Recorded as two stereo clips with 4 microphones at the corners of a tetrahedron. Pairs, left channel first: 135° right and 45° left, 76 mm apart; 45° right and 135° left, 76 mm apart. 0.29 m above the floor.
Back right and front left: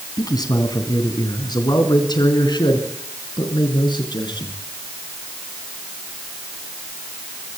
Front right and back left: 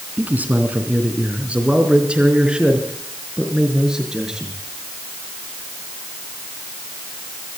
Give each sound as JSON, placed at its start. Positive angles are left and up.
{"t": 0.2, "sound": "a man speaking", "azimuth_deg": -160, "distance_m": 3.0}